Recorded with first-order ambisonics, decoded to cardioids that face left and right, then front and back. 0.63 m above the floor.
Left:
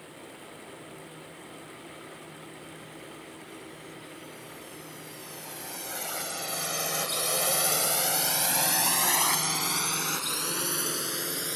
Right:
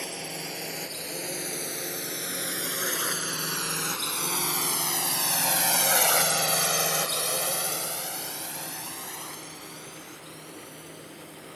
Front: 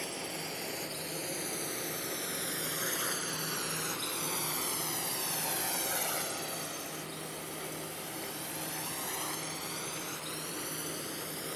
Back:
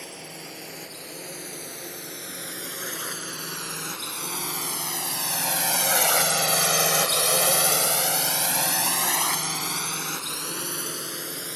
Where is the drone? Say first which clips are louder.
Right 11 dB, even; 90° right; by 11.6 s 120° left.